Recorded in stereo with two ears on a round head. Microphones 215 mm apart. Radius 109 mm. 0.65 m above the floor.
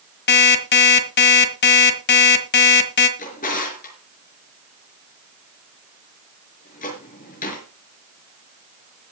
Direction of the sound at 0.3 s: 45° left (ahead or behind).